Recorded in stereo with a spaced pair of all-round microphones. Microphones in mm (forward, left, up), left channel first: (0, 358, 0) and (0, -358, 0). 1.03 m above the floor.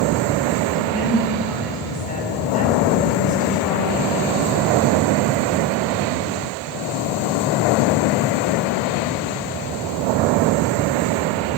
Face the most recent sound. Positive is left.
turn(degrees=10)  # may be behind; listen again after turning